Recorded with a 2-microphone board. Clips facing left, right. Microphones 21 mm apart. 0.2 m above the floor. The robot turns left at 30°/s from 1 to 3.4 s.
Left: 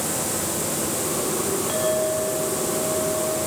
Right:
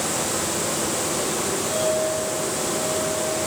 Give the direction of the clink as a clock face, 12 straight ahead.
10 o'clock.